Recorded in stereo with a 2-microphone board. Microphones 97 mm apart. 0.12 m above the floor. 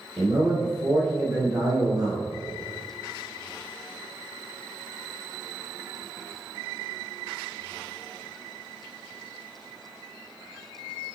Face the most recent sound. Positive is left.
turn(degrees=-40)  # may be behind; listen again after turning